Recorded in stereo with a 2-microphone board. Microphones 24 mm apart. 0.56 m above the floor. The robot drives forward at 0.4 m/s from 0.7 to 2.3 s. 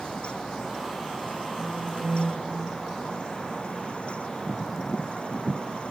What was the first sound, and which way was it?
A phone buzzing, 35° right (ahead or behind).